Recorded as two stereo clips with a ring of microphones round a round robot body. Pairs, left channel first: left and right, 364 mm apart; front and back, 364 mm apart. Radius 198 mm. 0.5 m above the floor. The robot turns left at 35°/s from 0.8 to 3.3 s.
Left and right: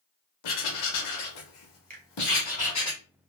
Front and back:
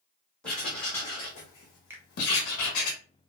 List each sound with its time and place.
0.4 s writing: 85° left, 0.9 m; by 2.9 s 15° left, 0.9 m
1.9 s a finger snap: 105° right, 0.6 m; by 2.0 s 110° right, 0.6 m